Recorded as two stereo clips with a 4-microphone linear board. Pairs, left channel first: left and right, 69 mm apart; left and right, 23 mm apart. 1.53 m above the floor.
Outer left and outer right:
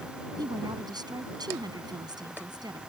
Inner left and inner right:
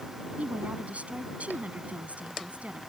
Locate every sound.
0.4 s a woman speaking: 80° right